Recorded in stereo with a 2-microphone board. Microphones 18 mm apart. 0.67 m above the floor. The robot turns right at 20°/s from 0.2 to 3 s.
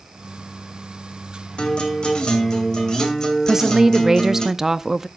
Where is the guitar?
65° left (ahead or behind), 2.5 m; by 4.5 s 35° left (ahead or behind), 2.5 m.